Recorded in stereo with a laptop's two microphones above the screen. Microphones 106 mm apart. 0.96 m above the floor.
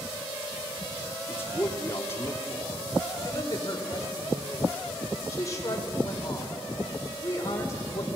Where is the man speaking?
25° left (ahead or behind), 2.5 m.